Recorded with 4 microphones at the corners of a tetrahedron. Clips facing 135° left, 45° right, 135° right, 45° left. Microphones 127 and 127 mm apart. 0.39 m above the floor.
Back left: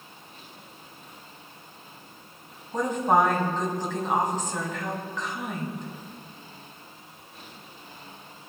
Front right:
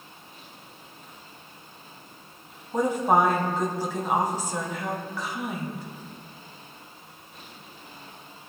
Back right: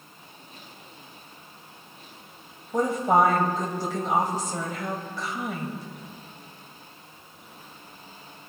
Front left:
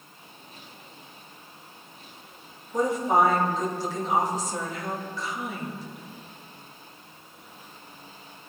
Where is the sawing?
I don't hear sawing.